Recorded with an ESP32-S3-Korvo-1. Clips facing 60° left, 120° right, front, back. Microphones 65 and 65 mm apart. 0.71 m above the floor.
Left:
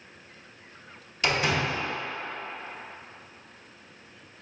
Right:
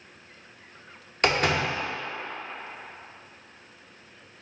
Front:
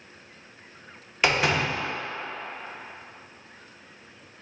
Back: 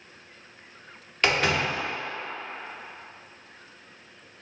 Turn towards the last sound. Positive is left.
turn(degrees=-85)